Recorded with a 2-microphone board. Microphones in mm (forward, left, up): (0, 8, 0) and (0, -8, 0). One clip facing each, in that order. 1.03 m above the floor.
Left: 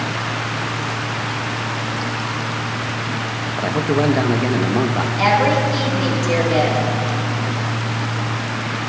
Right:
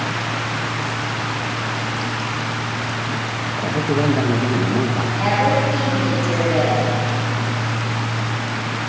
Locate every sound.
3.6 s a man speaking: 30° left (ahead or behind), 0.9 m
5.2 s a woman speaking: 50° left (ahead or behind), 5.5 m